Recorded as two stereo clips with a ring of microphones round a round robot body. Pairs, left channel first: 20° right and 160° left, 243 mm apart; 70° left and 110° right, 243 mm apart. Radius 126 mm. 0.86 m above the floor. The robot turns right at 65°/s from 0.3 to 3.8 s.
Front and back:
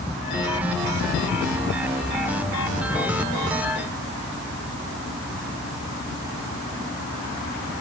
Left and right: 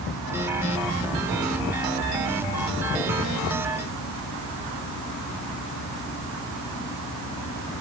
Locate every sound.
Only background noise.